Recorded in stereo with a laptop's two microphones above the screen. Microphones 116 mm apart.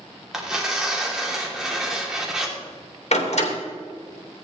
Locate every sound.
0.3 s tearing paper: 5° right (ahead or behind), 3 m
3.1 s a door slam: 70° left (ahead or behind), 2.5 m